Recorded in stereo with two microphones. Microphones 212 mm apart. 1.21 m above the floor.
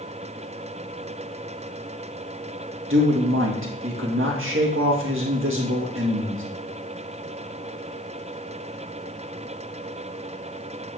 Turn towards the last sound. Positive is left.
turn(degrees=-70)  # may be behind; listen again after turning